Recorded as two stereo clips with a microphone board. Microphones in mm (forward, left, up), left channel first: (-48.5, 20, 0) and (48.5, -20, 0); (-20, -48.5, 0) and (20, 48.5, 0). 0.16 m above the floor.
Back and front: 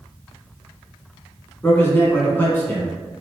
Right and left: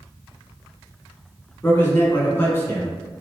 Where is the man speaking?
155° right, 1.1 m.